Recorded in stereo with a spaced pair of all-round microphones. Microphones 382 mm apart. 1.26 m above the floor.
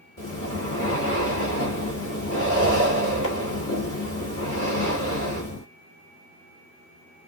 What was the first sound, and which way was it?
Breathing, 50° left (ahead or behind).